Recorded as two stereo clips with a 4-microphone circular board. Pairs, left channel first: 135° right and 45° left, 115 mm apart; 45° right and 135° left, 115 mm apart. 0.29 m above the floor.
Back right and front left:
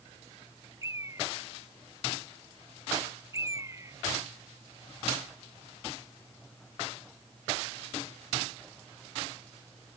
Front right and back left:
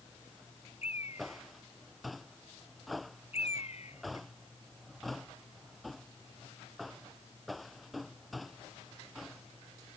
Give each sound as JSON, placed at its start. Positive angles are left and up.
{"t": 0.8, "sound": "a bird", "azimuth_deg": -20}